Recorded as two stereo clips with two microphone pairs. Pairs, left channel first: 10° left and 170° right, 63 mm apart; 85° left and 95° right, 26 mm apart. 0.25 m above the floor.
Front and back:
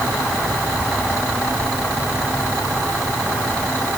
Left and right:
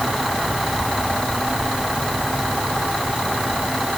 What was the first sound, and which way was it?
Only background noise.